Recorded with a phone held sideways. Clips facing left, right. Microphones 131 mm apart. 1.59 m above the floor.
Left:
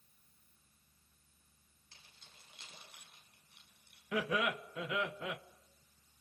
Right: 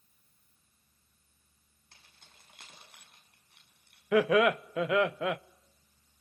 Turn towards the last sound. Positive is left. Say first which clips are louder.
# right 11 dB
turn(degrees=-80)